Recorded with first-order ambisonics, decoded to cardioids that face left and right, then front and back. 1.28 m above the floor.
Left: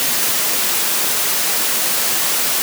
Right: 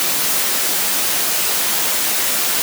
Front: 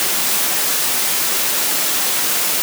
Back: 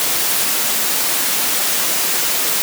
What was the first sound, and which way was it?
Only background noise.